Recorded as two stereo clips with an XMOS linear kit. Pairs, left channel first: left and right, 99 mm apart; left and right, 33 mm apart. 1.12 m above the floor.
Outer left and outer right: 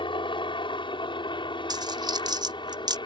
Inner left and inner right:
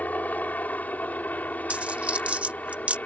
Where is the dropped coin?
45° right (ahead or behind).